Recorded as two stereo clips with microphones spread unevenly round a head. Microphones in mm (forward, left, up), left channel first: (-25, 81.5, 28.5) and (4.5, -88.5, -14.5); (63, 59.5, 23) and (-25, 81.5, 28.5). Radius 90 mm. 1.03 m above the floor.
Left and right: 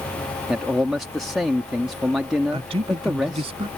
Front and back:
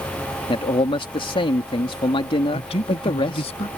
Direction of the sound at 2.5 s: 20° right.